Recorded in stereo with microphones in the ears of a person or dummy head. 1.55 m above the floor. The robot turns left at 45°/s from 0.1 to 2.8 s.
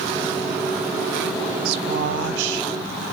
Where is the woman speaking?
60° right, 1.1 m; by 2.7 s 110° right, 1.1 m.